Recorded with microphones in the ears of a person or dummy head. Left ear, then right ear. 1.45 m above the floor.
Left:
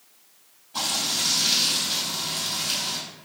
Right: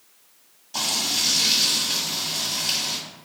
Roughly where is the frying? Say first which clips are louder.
Right 2 dB; right.